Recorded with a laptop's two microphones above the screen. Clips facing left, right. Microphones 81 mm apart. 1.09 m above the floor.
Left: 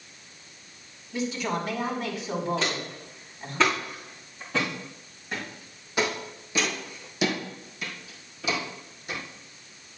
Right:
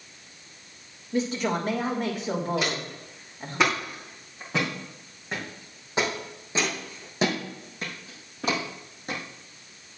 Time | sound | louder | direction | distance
1.1 | a woman speaking | right 3 dB | 50° right (ahead or behind) | 3 m
2.6 | footsteps | right 1 dB | 10° right (ahead or behind) | 4.5 m